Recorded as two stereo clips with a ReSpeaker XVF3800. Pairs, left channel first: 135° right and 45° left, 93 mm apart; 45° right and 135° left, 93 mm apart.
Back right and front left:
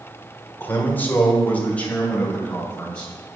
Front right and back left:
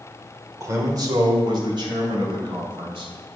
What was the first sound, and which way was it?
A man speaking, 170° left.